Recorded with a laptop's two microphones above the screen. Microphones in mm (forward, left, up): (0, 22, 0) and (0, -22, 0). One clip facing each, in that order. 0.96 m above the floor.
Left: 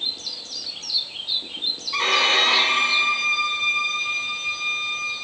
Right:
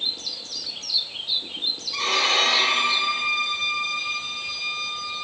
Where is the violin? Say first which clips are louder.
Left 3 dB; 35° left (ahead or behind), 2.0 m.